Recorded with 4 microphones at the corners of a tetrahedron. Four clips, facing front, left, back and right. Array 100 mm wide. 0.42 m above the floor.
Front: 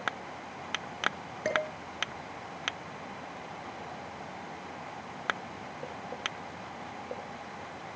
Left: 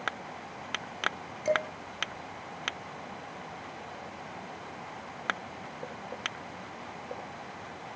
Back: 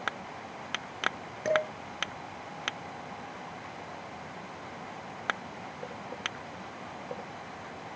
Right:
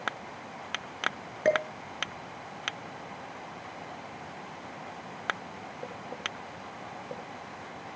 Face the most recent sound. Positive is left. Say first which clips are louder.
# right 3 dB, back 3 dB
turn(degrees=-85)